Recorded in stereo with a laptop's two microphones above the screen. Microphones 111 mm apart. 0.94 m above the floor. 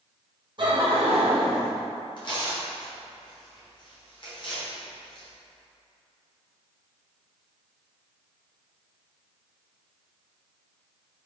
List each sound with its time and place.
0.6 s laughter: 45° right (ahead or behind), 0.9 m; by 1.7 s 50° right (ahead or behind), 1.2 m
2.2 s tearing paper: 45° left (ahead or behind), 1.1 m